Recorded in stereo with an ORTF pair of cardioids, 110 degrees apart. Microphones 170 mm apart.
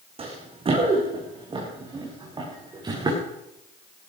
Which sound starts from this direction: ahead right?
Running footsteps, at 0.2 s.